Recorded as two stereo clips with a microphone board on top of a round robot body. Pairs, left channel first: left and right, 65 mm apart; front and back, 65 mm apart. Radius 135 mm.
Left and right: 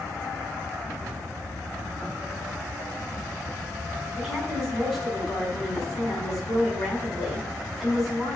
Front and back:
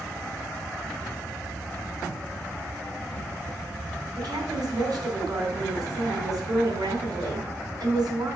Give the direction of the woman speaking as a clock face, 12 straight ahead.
6 o'clock.